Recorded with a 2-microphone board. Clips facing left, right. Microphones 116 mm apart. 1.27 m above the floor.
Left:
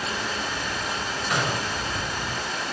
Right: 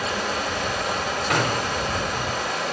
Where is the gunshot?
60° right (ahead or behind), 3.5 m.